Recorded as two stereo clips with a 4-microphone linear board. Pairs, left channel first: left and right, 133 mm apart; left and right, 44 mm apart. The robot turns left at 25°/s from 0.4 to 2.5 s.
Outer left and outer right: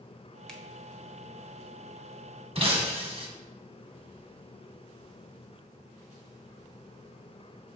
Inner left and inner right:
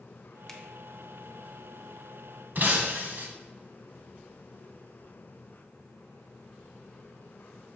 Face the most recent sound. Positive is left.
turn(degrees=-50)  # may be behind; listen again after turning